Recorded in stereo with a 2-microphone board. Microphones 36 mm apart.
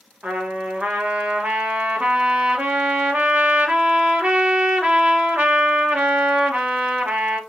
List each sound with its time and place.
0.2 s a trumpet: 50° right (ahead or behind), 1.4 m